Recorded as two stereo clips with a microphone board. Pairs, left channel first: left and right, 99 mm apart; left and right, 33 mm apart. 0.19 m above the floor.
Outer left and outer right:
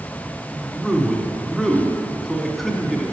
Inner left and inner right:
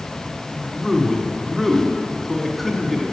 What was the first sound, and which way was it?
A man speaking, centre (ahead or behind).